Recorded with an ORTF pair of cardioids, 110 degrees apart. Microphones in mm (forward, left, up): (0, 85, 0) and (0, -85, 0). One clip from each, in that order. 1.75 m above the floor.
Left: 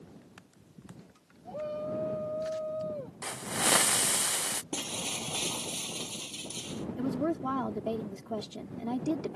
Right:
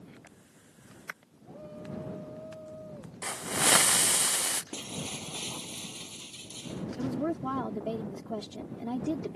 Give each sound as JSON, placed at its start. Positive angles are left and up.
{"t": 1.4, "sound": "a shout", "azimuth_deg": 65}
{"t": 3.2, "sound": "a hiss", "azimuth_deg": -10}
{"t": 4.7, "sound": "breaking glass", "azimuth_deg": 30}
{"t": 7.0, "sound": "a woman speaking", "azimuth_deg": 10}